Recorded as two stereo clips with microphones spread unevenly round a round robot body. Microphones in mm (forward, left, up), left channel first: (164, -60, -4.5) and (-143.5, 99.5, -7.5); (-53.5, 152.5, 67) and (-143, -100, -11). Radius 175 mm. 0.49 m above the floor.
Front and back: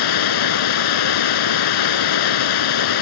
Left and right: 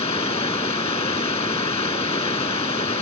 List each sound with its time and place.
0.0 s running water: 5° right